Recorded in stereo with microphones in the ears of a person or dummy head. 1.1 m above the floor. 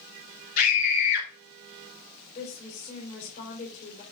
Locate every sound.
0.6 s a scream: 45° left (ahead or behind), 1.6 m
2.4 s a woman speaking: 35° left (ahead or behind), 4 m